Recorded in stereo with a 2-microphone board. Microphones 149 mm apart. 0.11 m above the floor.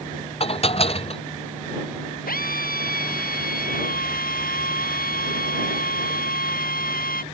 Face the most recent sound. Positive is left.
turn(degrees=80)